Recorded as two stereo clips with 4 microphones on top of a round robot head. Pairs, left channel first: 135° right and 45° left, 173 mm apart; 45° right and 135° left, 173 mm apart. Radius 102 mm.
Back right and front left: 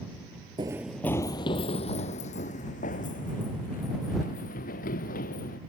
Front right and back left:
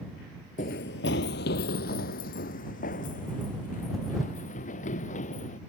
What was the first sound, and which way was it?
Running footsteps, 10° right.